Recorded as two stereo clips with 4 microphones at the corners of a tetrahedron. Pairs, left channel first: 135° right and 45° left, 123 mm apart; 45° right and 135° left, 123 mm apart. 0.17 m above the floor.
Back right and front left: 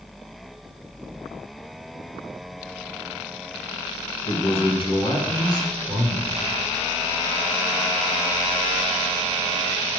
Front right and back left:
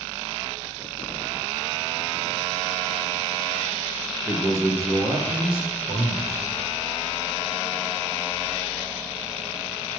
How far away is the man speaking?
About 2 m.